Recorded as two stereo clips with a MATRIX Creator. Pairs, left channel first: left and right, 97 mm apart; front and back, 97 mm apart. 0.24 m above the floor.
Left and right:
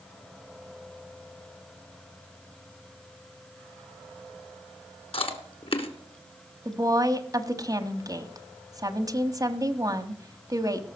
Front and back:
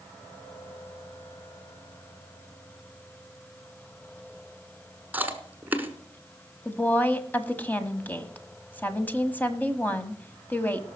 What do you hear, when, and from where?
5.1 s chewing: 110° left, 1.4 m
6.7 s a woman speaking: 65° right, 1.2 m